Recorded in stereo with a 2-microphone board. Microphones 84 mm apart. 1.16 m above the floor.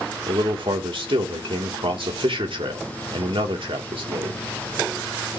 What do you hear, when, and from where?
0.3 s a man speaking: 80° right, 3 m